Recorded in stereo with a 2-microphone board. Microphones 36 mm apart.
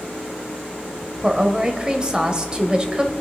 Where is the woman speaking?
20° right (ahead or behind), 1.4 m.